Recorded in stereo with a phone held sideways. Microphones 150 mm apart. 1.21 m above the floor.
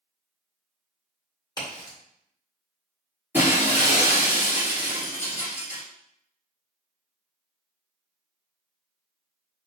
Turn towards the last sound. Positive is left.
turn(degrees=-15)  # may be behind; listen again after turning